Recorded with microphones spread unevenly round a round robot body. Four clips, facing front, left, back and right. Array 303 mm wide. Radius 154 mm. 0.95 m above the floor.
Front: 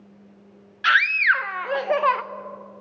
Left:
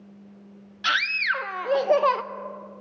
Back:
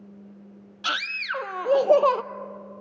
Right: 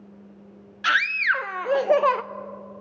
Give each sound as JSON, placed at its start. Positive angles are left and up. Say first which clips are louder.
{"t": 0.8, "sound": "a scream", "louder": "right 3 dB, front 11 dB", "azimuth_deg": -175, "distance_m": 0.5}